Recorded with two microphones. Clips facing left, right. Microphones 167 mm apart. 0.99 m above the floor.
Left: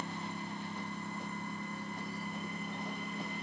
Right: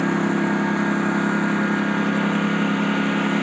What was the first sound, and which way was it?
A lawn mower, 75° right (ahead or behind).